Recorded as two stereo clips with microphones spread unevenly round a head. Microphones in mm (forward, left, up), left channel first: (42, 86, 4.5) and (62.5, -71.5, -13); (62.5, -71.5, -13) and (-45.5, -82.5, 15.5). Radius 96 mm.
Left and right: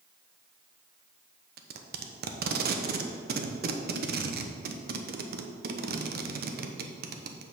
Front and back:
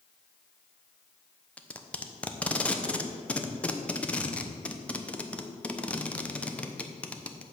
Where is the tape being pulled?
70° right, 0.9 m.